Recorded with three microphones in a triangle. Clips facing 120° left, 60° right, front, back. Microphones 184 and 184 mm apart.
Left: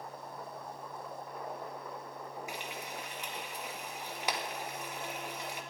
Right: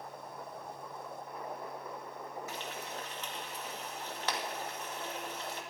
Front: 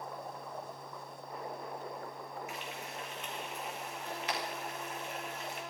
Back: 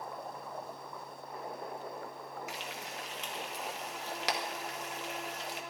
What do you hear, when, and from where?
2.5 s frying: 165° right, 2 m